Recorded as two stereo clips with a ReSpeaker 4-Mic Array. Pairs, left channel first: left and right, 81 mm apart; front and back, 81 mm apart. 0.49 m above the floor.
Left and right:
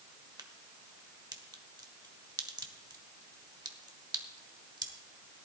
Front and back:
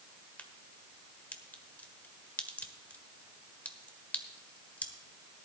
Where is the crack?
70° right, 1.2 m.